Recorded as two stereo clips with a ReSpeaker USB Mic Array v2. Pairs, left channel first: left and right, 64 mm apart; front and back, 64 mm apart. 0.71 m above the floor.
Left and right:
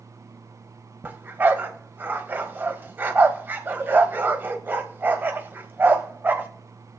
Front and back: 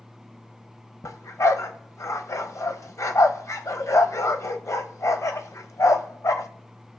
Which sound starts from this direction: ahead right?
A dog barking, at 1.0 s.